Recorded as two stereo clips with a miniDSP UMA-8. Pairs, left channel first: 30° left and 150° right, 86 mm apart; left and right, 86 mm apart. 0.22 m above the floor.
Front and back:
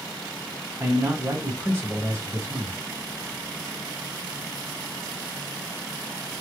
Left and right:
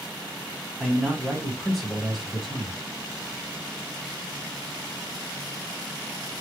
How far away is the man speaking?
About 2 m.